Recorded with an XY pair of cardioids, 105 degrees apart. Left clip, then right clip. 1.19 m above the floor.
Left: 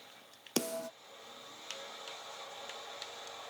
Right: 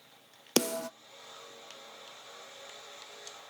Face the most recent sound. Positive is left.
turn(degrees=-40)